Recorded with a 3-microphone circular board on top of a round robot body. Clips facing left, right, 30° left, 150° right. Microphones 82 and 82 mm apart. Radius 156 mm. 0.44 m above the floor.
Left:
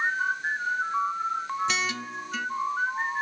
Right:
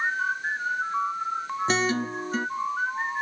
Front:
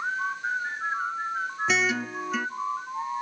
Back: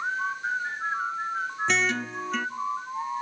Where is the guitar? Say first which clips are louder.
Right 5 dB, front 1 dB; 55° right, 0.8 m.